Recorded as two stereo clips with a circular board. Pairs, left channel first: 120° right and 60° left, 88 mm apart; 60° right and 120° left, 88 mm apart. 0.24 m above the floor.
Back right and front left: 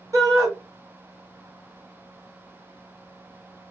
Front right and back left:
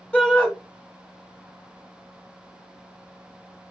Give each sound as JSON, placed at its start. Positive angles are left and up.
{"t": 0.1, "sound": "a shout", "azimuth_deg": 15, "distance_m": 2.0}